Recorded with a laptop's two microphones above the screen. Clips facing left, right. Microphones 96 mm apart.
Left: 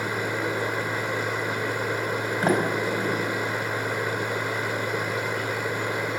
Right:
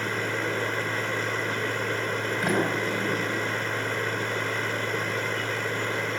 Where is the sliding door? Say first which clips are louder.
Left 3 dB; 35° left (ahead or behind), 4.5 m.